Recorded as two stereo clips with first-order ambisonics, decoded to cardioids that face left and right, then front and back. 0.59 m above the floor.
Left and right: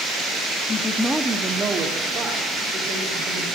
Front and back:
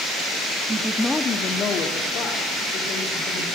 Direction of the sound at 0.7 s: 120° left.